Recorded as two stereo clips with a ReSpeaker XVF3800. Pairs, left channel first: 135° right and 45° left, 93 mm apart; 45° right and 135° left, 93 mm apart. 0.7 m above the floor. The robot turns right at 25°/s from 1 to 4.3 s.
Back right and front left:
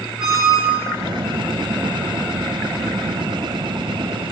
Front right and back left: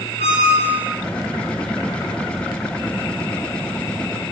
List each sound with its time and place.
0.2 s a squeak: 35° right, 0.7 m